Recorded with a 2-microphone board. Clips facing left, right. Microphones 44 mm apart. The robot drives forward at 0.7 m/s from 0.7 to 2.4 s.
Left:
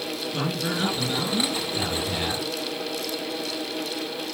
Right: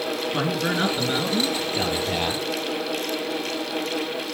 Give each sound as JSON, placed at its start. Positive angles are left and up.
{"t": 0.3, "sound": "a man speaking", "side_deg": -30, "distance_m": 4.5}